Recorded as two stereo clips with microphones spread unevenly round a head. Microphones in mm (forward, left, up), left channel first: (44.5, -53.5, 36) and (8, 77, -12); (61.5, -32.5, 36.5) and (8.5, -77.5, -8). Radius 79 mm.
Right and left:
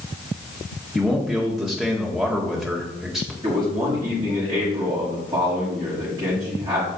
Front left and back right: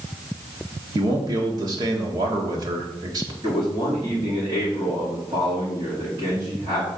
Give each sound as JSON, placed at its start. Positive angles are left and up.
{"t": 0.9, "sound": "a man speaking", "azimuth_deg": -170, "distance_m": 1.6}
{"t": 3.4, "sound": "a man speaking", "azimuth_deg": 170, "distance_m": 5.0}